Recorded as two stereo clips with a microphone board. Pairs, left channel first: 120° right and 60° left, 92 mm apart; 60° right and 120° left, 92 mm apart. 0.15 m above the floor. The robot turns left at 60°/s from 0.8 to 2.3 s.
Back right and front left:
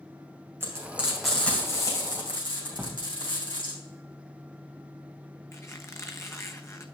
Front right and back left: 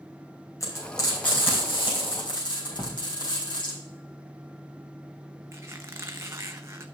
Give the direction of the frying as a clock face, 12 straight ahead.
12 o'clock.